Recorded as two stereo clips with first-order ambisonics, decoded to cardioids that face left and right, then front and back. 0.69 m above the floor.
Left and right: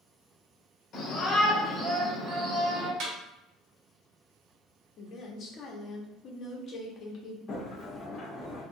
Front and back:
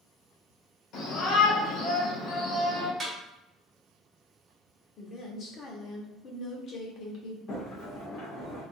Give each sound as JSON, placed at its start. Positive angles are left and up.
{"t": 0.9, "sound": "a shout", "azimuth_deg": 35, "distance_m": 1.2}
{"t": 3.0, "sound": "a snare drum", "azimuth_deg": -105, "distance_m": 1.0}
{"t": 5.0, "sound": "a woman speaking", "azimuth_deg": 45, "distance_m": 0.8}
{"t": 7.5, "sound": "a sliding door", "azimuth_deg": 30, "distance_m": 1.1}